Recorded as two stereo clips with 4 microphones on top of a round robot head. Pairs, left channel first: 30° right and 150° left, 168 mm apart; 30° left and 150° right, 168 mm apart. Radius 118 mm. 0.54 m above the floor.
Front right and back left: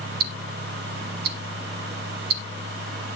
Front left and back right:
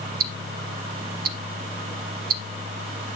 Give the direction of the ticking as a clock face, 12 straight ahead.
6 o'clock.